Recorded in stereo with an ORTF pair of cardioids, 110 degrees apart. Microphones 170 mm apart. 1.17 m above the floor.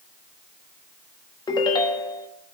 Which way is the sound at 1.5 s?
25° left.